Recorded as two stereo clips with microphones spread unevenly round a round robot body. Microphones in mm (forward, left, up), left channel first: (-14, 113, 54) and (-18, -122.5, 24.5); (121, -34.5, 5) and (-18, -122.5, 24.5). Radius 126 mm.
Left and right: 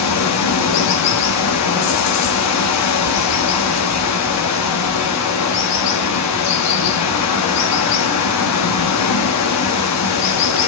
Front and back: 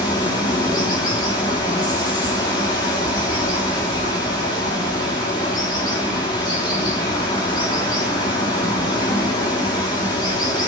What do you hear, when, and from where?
0.0 s running water: 105° left, 1.3 m